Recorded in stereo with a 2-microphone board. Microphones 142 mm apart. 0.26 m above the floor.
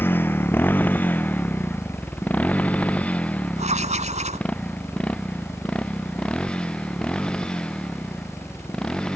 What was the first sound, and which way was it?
A motorcycle, 15° left (ahead or behind).